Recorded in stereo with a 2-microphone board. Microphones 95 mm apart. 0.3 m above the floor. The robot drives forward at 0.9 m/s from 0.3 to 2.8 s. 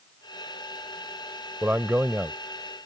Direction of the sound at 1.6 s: 20° right (ahead or behind).